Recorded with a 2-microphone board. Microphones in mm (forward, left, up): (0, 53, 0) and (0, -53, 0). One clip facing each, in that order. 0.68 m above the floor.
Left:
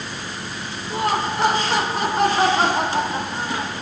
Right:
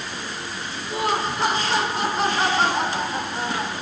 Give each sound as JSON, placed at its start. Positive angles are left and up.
{"t": 0.9, "sound": "laughter", "side_deg": 50, "distance_m": 3.0}